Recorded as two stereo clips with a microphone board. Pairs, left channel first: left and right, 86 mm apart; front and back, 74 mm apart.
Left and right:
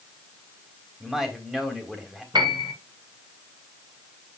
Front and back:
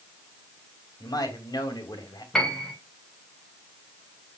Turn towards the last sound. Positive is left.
turn(degrees=-80)